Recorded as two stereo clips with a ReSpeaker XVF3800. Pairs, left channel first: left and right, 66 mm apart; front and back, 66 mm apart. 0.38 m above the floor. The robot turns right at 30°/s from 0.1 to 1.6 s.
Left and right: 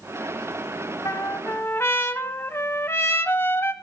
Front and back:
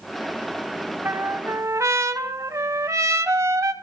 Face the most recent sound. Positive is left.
turn(degrees=140)